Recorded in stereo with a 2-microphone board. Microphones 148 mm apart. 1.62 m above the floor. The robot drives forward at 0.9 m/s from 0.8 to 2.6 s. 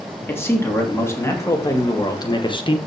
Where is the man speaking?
15° left (ahead or behind), 3 m; by 2.8 s 35° left (ahead or behind), 1.4 m.